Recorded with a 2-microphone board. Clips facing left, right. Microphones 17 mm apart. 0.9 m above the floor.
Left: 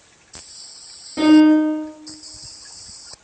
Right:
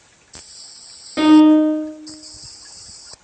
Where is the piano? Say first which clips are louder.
Right 2 dB; 50° right (ahead or behind), 1.3 m.